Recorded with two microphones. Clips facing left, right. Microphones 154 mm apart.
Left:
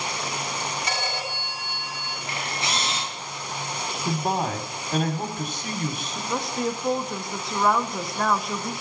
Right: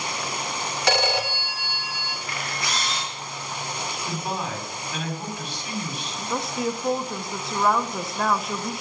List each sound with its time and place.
0.9 s a phone ringing: 75° right (ahead or behind), 1.0 m
2.3 s a camera shutter: 25° left (ahead or behind), 2.5 m
4.0 s a man speaking: 45° left (ahead or behind), 1.8 m
6.3 s a woman speaking: centre (ahead or behind), 0.7 m